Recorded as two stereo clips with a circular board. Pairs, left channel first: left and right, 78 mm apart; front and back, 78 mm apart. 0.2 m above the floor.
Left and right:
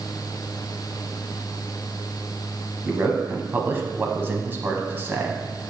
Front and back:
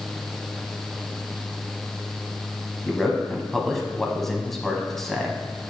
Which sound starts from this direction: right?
A man speaking, at 2.9 s.